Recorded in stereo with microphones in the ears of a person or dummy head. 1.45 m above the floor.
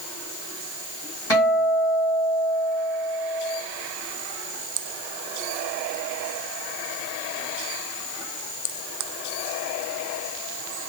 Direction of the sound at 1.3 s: 70° left (ahead or behind).